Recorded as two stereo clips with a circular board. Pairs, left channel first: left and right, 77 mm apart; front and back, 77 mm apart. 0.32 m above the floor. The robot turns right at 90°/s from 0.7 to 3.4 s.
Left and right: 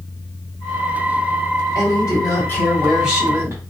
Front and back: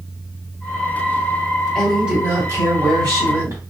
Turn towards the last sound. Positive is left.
turn(degrees=-135)